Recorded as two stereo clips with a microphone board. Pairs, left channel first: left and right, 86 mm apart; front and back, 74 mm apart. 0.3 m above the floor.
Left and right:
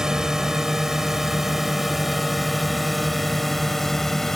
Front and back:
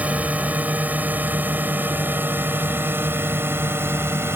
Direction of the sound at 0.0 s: 160° right.